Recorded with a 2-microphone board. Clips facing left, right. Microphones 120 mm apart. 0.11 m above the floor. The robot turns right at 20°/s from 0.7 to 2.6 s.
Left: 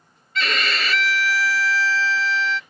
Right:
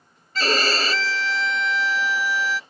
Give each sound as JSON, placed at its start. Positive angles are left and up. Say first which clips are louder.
{"t": 0.3, "sound": "a violin", "louder": "right 3 dB", "azimuth_deg": -50}